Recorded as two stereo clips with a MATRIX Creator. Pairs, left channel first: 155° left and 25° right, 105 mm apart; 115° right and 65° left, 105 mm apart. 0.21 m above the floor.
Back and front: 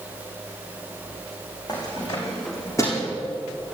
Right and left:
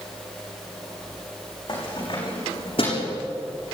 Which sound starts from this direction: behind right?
Keys jangling, at 1.7 s.